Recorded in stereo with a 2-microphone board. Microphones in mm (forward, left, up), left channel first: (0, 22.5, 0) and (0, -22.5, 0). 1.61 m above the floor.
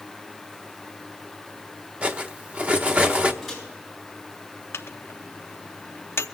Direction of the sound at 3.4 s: Centre (ahead or behind).